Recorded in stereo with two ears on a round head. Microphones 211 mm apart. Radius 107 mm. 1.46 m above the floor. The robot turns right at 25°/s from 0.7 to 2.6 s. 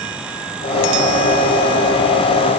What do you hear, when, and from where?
Only background noise.